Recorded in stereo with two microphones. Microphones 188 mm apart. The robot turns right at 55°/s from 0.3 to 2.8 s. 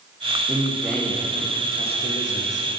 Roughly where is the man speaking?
Ahead.